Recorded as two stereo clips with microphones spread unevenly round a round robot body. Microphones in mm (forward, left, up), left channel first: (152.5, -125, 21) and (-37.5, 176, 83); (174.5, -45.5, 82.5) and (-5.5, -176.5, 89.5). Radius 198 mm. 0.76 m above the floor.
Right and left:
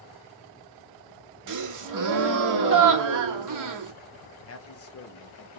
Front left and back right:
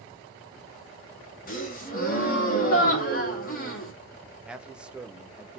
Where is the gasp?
85° left, 1.0 m.